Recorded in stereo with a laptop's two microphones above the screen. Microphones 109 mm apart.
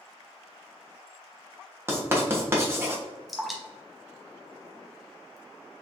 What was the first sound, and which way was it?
Writing, 20° right (ahead or behind).